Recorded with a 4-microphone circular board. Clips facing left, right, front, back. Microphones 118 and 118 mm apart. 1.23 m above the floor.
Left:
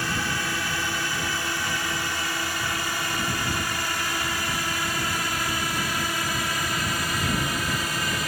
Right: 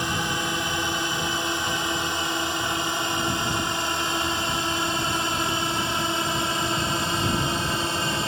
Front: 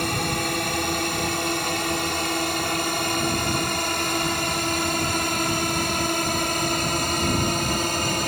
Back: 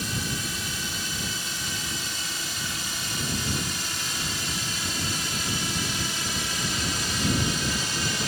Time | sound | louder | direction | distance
0.0 | a drone | right 2 dB, front 7 dB | 20° right | ?